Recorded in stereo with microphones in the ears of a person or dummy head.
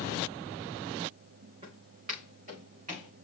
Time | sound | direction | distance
1.6 | footsteps | 35° right (ahead or behind) | 5 m